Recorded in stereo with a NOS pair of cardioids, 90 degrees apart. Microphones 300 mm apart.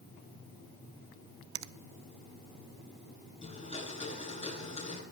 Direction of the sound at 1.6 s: 70° right.